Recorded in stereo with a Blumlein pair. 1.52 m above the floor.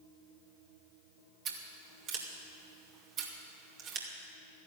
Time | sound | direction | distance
1.4 | scissors | 35° right | 2.5 m